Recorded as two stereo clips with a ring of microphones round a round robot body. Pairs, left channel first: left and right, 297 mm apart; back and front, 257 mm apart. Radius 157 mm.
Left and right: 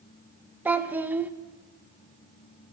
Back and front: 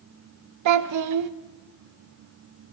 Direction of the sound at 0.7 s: 5° right.